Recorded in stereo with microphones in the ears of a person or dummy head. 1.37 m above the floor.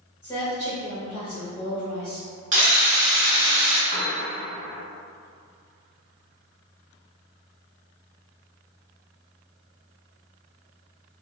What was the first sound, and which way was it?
A woman speaking, 20° left (ahead or behind).